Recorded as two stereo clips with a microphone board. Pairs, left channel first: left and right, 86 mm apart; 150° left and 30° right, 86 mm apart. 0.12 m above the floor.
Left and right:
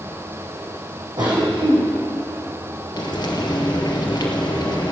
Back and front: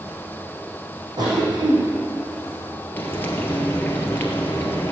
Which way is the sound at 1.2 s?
60° right.